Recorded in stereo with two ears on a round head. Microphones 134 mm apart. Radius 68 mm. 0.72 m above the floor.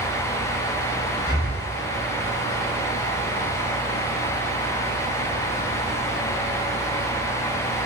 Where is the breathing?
75° left (ahead or behind), 3 m.